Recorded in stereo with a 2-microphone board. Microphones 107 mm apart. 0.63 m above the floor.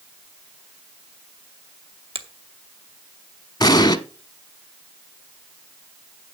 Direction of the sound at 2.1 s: 65° right (ahead or behind).